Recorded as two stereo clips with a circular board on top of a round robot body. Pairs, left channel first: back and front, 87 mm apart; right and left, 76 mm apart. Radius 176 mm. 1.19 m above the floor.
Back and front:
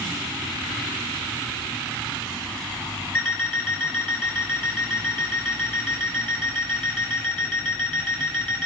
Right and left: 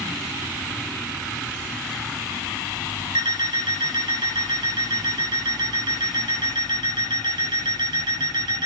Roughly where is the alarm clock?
Left.